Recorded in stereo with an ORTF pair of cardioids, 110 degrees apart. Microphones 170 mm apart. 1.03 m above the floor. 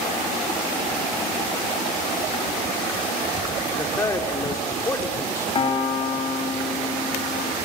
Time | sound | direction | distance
3.8 | a man speaking | 20° left | 3 m
5.5 | a piano | 35° left | 3 m